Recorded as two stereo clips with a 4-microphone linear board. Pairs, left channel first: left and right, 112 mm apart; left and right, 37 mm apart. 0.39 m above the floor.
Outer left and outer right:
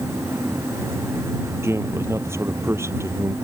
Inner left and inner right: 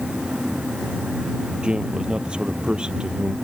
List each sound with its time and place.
1.6 s a man speaking: 25° right (ahead or behind)